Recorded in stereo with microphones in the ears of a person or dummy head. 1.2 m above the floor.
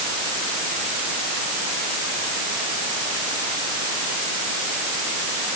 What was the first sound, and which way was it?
Only background noise.